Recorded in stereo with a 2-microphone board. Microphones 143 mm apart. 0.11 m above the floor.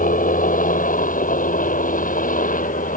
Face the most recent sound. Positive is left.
turn(degrees=65)  # may be behind; listen again after turning